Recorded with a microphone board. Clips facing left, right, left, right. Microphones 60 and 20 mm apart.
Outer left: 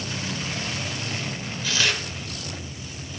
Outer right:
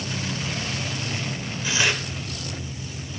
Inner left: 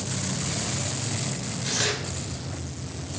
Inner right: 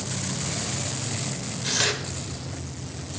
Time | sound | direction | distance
1.6 | tearing paper | 20° right (ahead or behind) | 2 m